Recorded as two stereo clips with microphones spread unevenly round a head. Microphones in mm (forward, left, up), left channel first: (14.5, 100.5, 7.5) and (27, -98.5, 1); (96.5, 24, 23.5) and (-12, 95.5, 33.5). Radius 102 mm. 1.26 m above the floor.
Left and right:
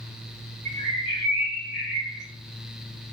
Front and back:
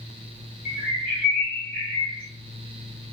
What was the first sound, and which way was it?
A bird, 40° right.